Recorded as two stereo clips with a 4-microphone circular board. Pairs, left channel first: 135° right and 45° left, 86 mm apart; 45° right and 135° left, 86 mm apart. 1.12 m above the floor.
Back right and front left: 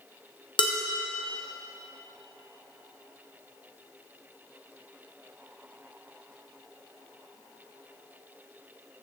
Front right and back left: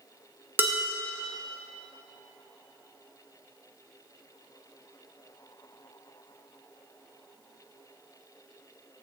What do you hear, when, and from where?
0.6 s dishes clattering: 160° right, 1.2 m